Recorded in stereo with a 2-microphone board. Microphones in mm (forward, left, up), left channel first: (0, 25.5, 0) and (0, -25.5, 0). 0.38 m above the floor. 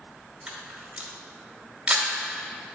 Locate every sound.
0.5 s a camera shutter: 20° right (ahead or behind), 1.2 m